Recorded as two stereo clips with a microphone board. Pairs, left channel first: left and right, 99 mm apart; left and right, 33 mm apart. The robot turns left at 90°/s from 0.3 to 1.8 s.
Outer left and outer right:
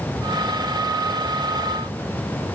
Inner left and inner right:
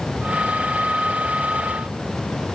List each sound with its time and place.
Only background noise.